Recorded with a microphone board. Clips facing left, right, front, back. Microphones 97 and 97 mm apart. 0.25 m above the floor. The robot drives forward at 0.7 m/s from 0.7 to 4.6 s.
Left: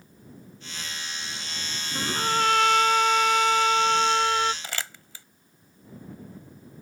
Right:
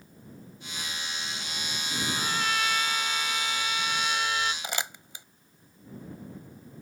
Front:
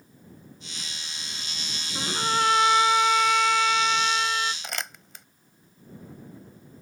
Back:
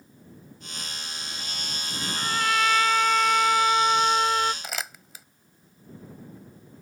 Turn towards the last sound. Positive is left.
turn(degrees=-100)